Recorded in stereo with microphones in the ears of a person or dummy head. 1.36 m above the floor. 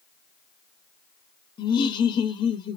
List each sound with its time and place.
1.6 s laughter: 20° left (ahead or behind), 0.5 m